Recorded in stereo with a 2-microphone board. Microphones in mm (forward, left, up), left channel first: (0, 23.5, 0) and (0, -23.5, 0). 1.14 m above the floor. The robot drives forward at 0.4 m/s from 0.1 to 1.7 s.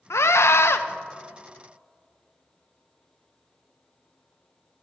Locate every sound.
0.1 s a scream: 75° left (ahead or behind), 0.5 m; by 0.8 s 60° left (ahead or behind), 0.6 m